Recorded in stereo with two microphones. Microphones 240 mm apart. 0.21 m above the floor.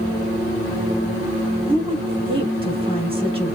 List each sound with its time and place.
1.7 s a woman speaking: 25° right (ahead or behind), 1.1 m